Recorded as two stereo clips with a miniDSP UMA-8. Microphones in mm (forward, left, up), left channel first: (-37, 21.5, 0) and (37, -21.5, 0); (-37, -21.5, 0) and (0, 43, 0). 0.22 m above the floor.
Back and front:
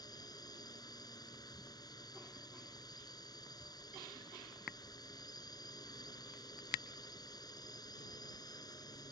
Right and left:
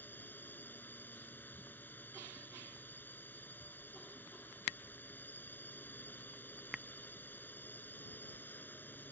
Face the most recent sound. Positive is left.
turn(degrees=180)